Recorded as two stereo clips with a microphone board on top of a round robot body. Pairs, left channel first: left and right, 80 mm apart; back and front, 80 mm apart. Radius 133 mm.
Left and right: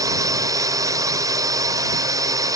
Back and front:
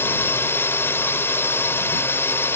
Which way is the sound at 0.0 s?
120° right.